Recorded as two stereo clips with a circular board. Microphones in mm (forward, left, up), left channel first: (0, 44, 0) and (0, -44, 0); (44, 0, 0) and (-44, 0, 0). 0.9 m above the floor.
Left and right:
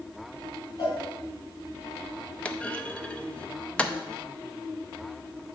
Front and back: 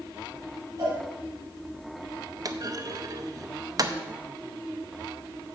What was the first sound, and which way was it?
A cowbell, 130° left.